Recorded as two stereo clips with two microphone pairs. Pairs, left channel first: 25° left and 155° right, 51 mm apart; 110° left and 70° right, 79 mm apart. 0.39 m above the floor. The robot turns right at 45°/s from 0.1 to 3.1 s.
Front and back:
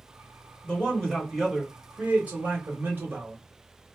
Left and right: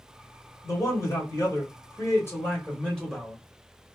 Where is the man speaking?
80° left, 1.6 m; by 3.4 s 170° right, 1.6 m.